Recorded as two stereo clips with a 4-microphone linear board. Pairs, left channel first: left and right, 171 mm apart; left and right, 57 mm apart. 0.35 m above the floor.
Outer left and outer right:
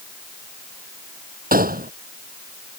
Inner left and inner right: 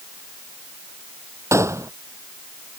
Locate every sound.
1.5 s a gunshot: 55° right (ahead or behind)